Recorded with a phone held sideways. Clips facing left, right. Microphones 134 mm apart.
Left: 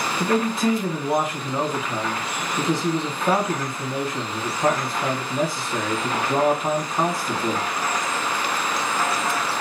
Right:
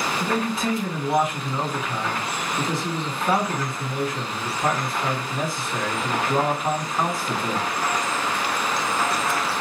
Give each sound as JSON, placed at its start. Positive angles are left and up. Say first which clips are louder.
{"t": 0.2, "sound": "a man speaking", "louder": "left 6 dB", "side_deg": 30, "distance_m": 1.4}